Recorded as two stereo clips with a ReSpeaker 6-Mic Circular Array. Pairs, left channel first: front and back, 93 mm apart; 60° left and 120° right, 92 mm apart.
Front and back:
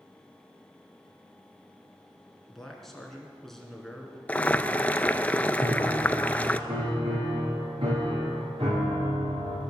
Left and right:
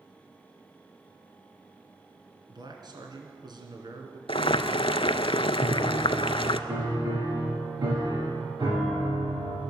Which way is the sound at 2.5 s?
85° right.